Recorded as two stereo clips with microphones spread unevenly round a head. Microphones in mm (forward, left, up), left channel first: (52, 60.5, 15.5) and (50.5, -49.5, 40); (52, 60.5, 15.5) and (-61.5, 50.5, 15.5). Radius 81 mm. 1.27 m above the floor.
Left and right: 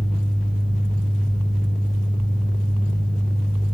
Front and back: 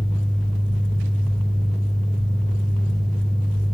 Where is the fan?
80° left, 4 m.